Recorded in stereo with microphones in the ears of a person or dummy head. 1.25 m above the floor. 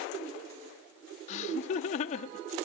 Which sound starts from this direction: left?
Laughter, at 1.3 s.